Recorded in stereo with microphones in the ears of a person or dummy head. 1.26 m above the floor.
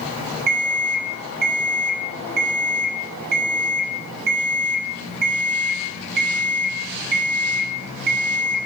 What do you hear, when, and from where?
0.5 s an alarm clock: 55° right (ahead or behind), 0.7 m